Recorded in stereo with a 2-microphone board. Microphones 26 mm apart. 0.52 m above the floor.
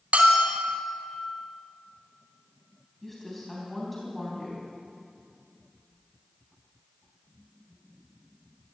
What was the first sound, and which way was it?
A bell, 75° right (ahead or behind).